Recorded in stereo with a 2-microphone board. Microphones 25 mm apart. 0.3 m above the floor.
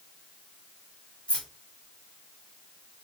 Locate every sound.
1.3 s keys jangling: 45° left (ahead or behind), 1.6 m